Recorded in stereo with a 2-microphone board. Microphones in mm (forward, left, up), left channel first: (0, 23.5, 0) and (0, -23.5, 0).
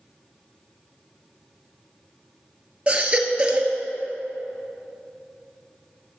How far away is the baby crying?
About 1.0 m.